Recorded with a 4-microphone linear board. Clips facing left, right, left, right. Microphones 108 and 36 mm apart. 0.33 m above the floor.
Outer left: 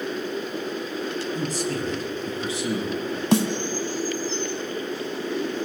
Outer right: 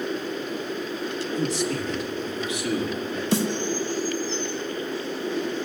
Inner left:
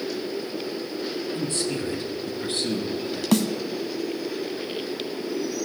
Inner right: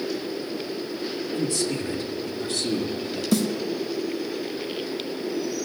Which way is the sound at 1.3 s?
45° left (ahead or behind).